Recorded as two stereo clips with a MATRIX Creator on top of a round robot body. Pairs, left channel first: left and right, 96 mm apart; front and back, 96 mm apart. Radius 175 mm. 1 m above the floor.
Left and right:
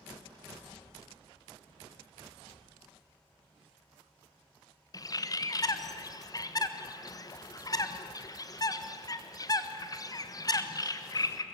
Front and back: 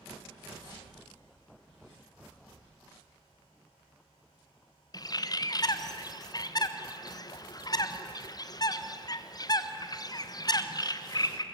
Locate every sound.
4.9 s a bird: 45° left, 1.4 m